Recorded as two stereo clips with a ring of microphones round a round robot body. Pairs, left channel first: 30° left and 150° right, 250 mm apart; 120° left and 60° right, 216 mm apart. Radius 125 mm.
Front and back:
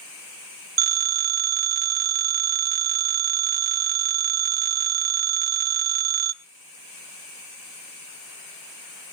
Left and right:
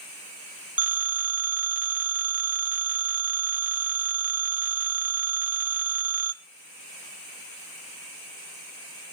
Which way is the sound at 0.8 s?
140° right.